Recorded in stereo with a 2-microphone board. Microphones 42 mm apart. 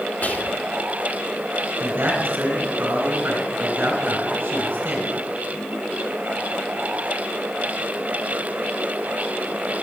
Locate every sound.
0.2 s whispering: 40° left (ahead or behind), 1.1 m
1.8 s a man speaking: 65° right (ahead or behind), 3 m